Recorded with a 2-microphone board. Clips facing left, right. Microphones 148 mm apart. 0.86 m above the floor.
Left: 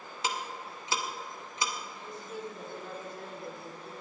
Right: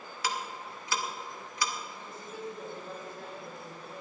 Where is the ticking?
25° left (ahead or behind), 1.2 m.